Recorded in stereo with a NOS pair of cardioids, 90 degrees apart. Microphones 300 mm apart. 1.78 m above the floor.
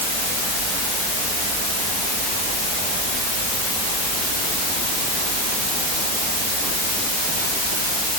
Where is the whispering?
I don't hear whispering.